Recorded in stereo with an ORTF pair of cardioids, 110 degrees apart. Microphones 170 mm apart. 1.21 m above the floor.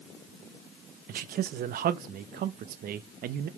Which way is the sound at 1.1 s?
60° right.